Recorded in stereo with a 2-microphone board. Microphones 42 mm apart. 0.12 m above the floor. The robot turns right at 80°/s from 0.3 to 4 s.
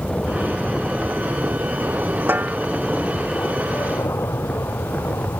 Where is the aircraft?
155° left; by 5.4 s 90° left.